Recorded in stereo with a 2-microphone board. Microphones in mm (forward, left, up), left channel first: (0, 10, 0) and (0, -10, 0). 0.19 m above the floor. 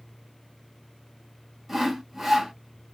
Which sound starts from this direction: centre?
Sawing, at 1.7 s.